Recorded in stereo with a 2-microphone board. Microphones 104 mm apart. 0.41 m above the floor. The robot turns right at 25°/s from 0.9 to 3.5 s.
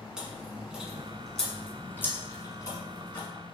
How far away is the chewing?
About 1.1 m.